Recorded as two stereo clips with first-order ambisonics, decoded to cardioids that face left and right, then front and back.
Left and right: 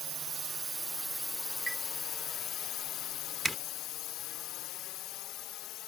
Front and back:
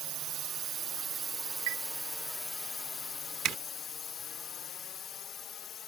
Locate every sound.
0.0 s a drone: 145° right; by 5.9 s 55° left
1.7 s a chime: straight behind
3.5 s a zipper: 170° right